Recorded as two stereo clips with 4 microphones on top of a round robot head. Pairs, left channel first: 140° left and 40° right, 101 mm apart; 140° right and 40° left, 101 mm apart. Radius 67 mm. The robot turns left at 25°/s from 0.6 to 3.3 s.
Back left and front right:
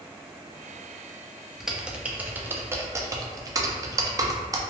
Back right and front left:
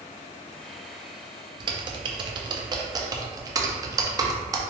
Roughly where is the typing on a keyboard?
Ahead left.